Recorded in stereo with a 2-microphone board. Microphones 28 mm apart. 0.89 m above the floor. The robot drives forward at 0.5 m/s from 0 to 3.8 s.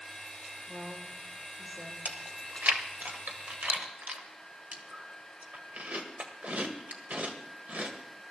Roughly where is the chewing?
Right.